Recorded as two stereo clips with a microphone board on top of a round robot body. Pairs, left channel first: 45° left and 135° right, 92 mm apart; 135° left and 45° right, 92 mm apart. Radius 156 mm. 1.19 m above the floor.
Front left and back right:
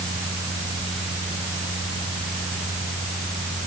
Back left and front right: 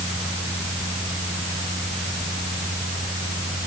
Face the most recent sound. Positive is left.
No sound to turn to.